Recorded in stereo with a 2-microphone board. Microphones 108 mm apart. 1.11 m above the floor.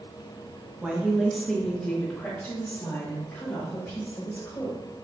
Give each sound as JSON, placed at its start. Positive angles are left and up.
{"t": 0.8, "sound": "a woman speaking", "side_deg": -10, "distance_m": 0.9}